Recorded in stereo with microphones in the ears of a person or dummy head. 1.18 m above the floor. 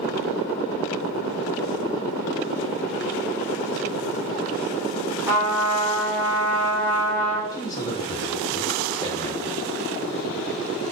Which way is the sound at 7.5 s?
20° left (ahead or behind).